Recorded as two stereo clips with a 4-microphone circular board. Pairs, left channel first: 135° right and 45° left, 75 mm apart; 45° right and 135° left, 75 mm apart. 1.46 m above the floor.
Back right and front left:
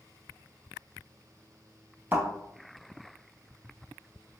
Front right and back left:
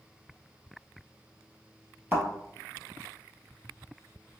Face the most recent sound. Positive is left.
turn(degrees=85)